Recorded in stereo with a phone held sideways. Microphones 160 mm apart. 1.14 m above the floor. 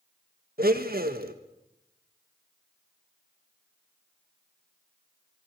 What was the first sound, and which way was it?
A blender, 70° right (ahead or behind).